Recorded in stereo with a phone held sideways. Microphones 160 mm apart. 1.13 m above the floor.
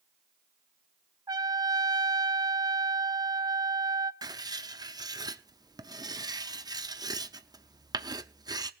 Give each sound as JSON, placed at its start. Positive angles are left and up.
{"t": 1.3, "sound": "a trumpet", "side_deg": -25, "distance_m": 0.6}
{"t": 4.2, "sound": "writing", "side_deg": -25, "distance_m": 0.7}